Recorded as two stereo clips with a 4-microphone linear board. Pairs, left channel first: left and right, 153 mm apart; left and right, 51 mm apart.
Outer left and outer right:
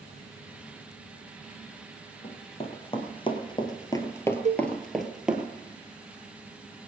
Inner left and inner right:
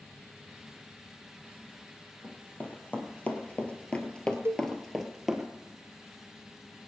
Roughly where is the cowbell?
Right.